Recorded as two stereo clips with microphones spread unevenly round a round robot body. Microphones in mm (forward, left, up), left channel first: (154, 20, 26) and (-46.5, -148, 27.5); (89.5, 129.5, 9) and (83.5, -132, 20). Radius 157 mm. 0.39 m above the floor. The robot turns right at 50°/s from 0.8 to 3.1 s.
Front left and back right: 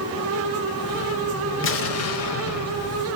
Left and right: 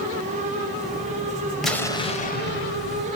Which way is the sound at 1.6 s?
Straight ahead.